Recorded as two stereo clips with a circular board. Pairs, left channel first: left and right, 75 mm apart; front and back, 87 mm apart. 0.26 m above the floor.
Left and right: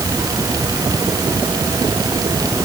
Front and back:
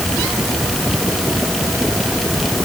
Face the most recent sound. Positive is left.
No sound to turn to.